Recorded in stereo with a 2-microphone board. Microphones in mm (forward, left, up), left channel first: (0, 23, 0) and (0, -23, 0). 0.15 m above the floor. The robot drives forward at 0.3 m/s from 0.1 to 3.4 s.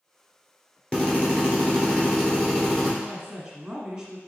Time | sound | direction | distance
0.9 | a drill | 20° left (ahead or behind) | 1.4 m
3.0 | a woman speaking | 10° right (ahead or behind) | 1.1 m